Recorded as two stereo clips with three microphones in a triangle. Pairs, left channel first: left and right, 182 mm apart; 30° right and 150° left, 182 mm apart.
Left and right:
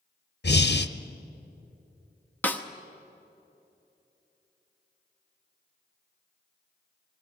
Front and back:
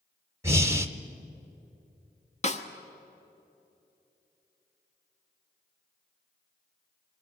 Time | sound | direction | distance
0.4 | breathing | 75° left | 0.8 m
2.4 | a snare drum | 10° left | 1.1 m